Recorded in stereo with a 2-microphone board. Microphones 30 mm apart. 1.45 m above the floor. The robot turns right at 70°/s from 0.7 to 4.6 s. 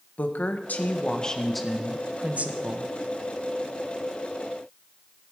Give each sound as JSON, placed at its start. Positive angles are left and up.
{"t": 0.2, "sound": "a woman speaking", "azimuth_deg": 115, "distance_m": 1.5}